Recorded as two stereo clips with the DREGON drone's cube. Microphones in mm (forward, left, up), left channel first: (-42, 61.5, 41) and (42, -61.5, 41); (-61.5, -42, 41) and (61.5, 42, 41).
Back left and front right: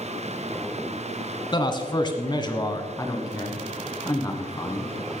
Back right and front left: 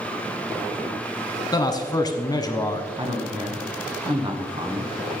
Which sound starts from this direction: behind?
A man speaking, at 1.5 s.